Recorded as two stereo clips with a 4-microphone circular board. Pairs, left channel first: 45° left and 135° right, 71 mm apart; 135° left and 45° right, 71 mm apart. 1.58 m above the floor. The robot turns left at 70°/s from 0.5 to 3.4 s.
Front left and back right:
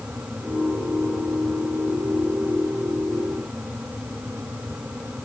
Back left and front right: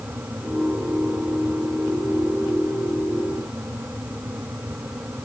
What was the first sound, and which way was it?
Only background noise.